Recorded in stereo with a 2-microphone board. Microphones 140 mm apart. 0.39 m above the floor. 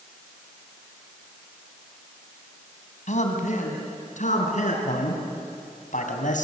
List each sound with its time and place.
3.1 s a man speaking: 60° left (ahead or behind), 3 m
4.8 s a man speaking: 65° left (ahead or behind), 3.5 m